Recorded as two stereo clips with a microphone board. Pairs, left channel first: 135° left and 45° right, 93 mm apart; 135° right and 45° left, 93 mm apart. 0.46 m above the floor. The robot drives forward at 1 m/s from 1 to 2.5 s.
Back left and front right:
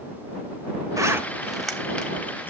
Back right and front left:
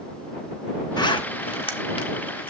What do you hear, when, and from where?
1.0 s a zipper: 100° right, 0.8 m; by 2.5 s 155° right, 1.8 m